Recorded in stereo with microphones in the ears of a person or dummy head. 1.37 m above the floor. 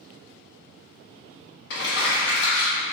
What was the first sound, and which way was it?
Crumpling, 55° left (ahead or behind).